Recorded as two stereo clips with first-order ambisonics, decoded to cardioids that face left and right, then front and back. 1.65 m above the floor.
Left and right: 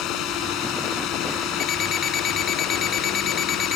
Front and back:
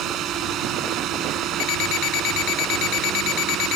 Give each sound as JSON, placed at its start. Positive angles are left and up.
{"t": 0.0, "sound": "a drone", "azimuth_deg": 130}
{"t": 1.6, "sound": "an alarm clock", "azimuth_deg": 30}